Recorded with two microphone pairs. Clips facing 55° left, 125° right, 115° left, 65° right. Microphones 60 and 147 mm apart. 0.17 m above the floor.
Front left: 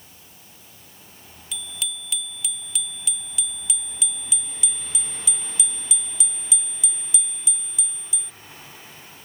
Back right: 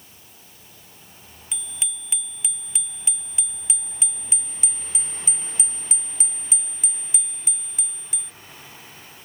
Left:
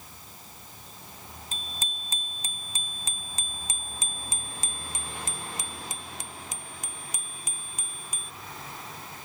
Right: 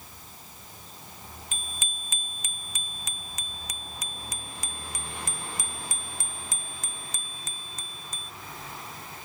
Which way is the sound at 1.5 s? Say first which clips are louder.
Front left 5 dB, left 1 dB; 165° left.